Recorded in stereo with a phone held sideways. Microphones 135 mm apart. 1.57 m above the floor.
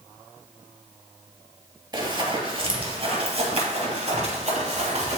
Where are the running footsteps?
30° right (ahead or behind), 2.0 m; by 5.2 s 55° right (ahead or behind), 2.5 m.